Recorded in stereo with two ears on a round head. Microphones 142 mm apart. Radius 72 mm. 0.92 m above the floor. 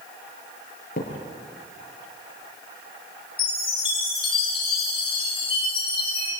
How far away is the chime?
About 9 m.